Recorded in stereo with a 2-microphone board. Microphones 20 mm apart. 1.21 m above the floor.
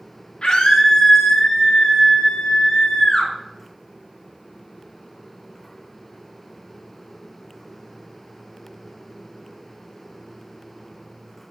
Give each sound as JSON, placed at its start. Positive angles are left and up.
{"t": 0.4, "sound": "a scream", "side_deg": 55, "distance_m": 2.5}